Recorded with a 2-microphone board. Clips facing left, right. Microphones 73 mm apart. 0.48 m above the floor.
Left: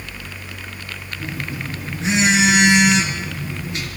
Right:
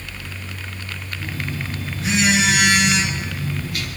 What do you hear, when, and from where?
1.2 s a phone buzzing: 25° left (ahead or behind), 3 m